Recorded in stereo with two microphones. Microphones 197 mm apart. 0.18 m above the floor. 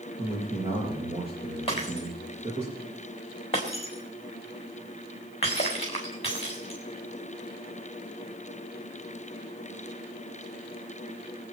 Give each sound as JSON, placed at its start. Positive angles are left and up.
{"t": 0.2, "sound": "a man speaking", "side_deg": -30, "distance_m": 6.0}
{"t": 1.7, "sound": "breaking glass", "side_deg": 30, "distance_m": 4.0}